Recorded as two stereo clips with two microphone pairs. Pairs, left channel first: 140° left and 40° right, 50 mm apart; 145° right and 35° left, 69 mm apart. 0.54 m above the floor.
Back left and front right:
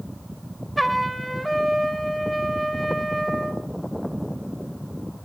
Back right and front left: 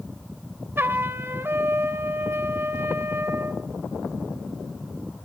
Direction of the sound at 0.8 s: 50° left.